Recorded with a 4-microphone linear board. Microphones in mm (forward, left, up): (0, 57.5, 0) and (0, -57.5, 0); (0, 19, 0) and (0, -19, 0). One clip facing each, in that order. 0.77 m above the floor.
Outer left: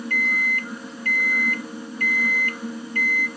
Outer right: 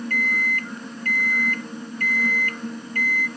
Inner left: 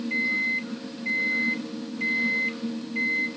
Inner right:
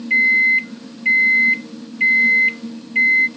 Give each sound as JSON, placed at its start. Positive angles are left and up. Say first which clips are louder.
{"t": 0.1, "sound": "a microwave", "louder": "outer left 1 dB, inner right 13 dB", "side_deg": -50, "distance_m": 0.5}